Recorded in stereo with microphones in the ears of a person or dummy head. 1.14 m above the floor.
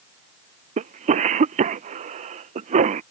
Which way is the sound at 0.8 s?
35° right (ahead or behind).